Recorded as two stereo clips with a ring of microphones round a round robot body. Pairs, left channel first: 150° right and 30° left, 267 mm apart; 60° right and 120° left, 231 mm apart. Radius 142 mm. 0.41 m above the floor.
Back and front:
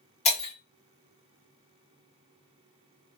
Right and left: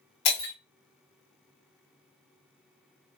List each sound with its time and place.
0.2 s breaking glass: 85° right, 0.8 m